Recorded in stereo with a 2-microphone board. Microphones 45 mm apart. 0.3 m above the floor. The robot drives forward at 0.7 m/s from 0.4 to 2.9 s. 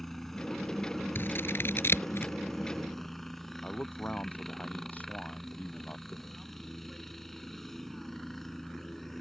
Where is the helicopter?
5° left (ahead or behind).